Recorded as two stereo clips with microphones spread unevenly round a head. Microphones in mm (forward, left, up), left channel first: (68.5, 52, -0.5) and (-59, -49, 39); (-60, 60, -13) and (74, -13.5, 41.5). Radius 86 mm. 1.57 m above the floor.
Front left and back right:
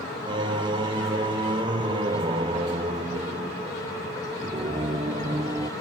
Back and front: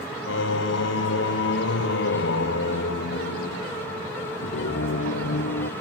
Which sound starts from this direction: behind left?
Singing, at 0.3 s.